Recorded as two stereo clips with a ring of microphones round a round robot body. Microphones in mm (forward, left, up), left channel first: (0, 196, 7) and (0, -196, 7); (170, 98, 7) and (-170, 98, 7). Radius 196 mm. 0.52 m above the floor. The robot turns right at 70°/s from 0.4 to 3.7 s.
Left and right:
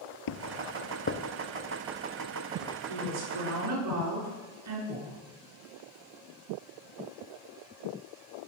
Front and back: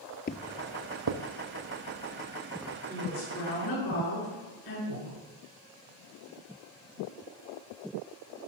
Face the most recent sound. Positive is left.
turn(degrees=-155)